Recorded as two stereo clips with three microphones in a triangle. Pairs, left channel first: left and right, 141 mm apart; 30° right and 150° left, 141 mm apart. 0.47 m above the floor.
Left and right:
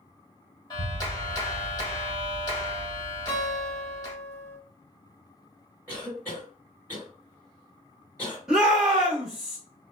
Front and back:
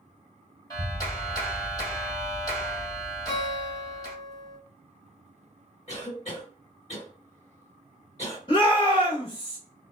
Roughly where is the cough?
Ahead right.